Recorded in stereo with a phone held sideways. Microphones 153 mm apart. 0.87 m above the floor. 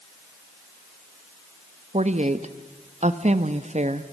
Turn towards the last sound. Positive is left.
turn(degrees=-50)  # may be behind; listen again after turning